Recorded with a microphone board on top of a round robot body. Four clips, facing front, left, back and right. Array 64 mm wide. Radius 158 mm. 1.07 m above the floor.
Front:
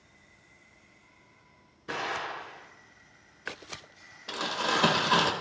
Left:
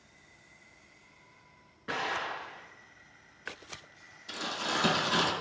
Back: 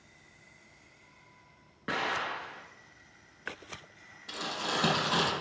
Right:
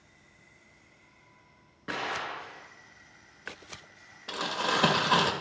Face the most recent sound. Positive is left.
turn(degrees=-60)